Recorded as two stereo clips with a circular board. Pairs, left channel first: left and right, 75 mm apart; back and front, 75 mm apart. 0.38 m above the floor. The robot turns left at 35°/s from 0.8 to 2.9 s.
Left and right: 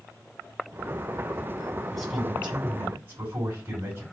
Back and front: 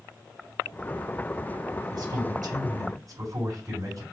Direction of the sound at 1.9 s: Straight ahead.